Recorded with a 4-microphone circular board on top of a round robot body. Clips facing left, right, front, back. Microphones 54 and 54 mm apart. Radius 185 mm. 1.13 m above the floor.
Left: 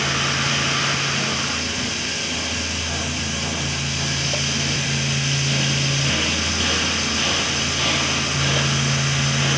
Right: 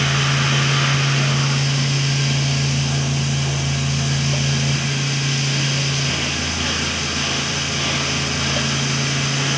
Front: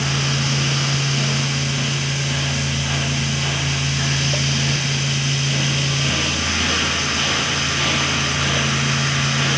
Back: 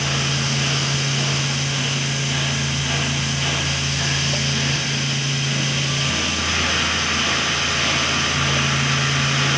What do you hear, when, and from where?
Only background noise.